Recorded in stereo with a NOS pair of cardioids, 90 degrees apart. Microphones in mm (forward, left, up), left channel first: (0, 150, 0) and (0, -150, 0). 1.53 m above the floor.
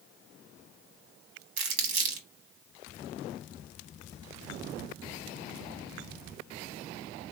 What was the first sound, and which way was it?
Crumpling, 65° right.